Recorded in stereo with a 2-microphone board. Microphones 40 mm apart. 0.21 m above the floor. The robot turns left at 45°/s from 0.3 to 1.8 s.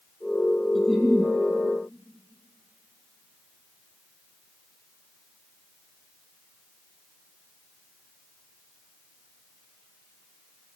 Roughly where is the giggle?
Centre.